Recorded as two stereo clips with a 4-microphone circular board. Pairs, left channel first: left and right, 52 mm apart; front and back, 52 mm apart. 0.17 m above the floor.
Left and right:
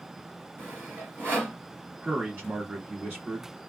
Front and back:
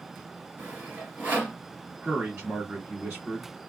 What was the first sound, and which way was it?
Sawing, 125° right.